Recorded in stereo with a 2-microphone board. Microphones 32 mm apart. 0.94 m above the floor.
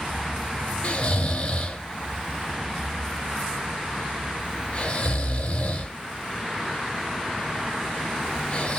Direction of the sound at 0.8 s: 40° left (ahead or behind).